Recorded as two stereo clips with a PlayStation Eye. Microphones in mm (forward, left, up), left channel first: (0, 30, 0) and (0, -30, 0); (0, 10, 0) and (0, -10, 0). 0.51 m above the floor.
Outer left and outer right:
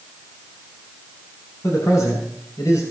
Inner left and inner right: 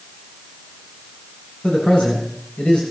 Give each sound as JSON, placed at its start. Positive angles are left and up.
{"t": 1.6, "sound": "a man speaking", "side_deg": 70, "distance_m": 9.0}